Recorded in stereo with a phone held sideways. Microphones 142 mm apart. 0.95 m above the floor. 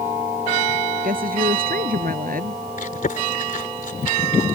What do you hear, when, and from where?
1.0 s a woman speaking: 85° right
2.8 s chewing: 75° left (ahead or behind)